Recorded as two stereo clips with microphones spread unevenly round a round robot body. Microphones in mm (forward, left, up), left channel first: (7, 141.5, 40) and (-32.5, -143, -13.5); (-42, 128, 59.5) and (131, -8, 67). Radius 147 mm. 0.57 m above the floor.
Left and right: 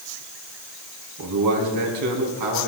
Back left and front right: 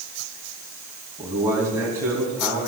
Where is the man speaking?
120° right, 4.5 m.